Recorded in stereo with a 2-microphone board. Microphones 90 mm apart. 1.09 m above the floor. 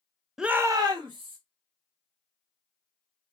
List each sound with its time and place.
0.4 s a shout: 5° right (ahead or behind), 0.6 m; by 1.4 s 60° right (ahead or behind), 1.4 m